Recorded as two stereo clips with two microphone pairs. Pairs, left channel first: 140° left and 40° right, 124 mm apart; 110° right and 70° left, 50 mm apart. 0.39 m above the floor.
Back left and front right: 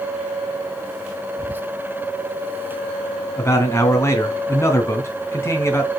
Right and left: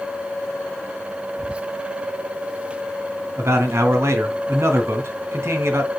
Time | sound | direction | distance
1.4 | whispering | 20° left | 0.9 m
3.4 | a man speaking | 70° left | 3 m